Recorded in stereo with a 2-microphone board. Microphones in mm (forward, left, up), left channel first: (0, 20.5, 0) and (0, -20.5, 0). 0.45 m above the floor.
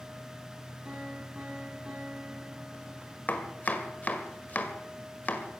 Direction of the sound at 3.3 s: 35° left (ahead or behind).